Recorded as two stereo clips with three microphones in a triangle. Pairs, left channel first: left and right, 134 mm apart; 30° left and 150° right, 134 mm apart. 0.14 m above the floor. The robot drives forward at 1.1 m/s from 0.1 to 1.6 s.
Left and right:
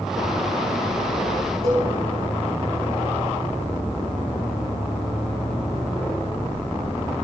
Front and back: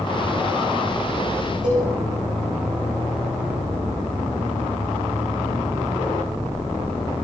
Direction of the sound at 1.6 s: 130° right.